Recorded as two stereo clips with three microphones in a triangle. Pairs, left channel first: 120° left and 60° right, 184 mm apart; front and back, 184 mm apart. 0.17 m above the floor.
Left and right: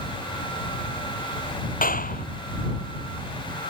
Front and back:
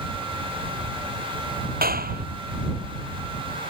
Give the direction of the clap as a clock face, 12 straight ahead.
7 o'clock.